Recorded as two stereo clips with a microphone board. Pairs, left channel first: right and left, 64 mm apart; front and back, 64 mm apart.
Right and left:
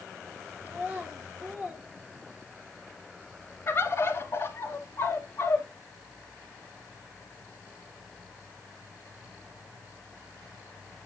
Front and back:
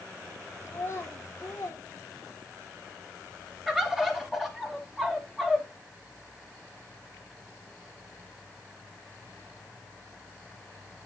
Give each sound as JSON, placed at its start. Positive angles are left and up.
{"t": 0.7, "sound": "a child speaking", "azimuth_deg": 35, "distance_m": 1.4}
{"t": 3.7, "sound": "a bird", "azimuth_deg": -100, "distance_m": 1.3}